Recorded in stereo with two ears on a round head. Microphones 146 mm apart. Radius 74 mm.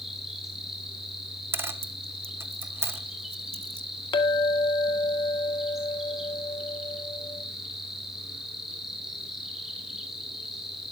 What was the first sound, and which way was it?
An insect, 5° right (ahead or behind).